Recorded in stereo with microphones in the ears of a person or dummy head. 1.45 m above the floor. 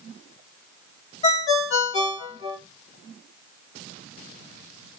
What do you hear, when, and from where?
1.2 s a ringtone: 35° left (ahead or behind), 1.0 m